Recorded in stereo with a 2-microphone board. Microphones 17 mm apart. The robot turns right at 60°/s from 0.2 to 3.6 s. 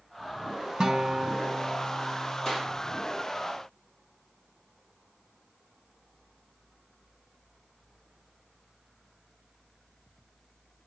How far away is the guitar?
About 1.0 m.